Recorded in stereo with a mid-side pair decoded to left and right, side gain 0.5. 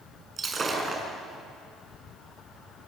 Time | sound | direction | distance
0.4 | breaking glass | 35° right | 6.5 m